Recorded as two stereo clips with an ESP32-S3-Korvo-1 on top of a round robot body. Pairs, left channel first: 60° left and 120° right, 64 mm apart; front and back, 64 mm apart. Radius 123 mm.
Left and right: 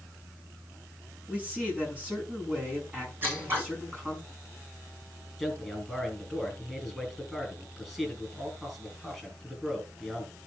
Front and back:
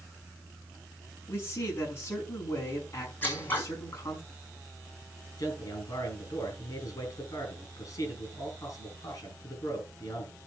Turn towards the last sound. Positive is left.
turn(degrees=-35)